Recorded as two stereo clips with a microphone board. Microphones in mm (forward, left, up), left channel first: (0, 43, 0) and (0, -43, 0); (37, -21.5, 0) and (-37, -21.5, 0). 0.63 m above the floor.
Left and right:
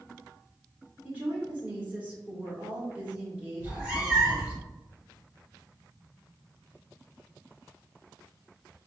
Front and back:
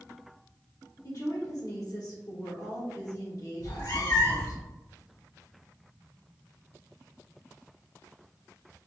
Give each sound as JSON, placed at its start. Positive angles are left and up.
{"t": 1.0, "sound": "a woman speaking", "azimuth_deg": -20, "distance_m": 1.3}
{"t": 3.6, "sound": "a cat meowing", "azimuth_deg": -15, "distance_m": 1.4}